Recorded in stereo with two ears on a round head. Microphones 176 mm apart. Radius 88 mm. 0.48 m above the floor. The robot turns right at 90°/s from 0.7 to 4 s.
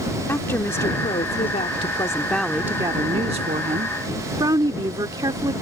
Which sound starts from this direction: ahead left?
A woman speaking, at 0.3 s.